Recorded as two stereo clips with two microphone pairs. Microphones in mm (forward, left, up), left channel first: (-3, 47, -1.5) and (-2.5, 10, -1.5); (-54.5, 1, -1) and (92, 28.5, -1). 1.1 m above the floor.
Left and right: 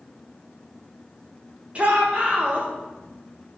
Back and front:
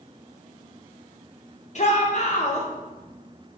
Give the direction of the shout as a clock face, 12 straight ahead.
5 o'clock.